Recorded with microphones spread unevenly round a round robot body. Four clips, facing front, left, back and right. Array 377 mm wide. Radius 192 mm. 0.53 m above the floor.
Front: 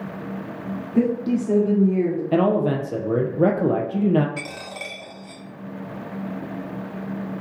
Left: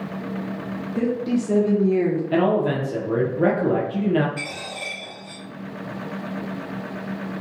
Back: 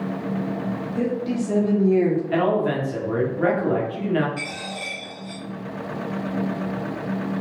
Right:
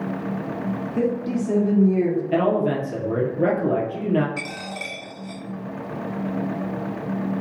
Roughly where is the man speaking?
Ahead.